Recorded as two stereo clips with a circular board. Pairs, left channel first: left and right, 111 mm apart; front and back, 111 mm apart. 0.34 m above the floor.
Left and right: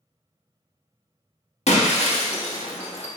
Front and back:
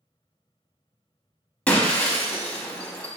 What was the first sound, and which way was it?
Breaking glass, 80° left.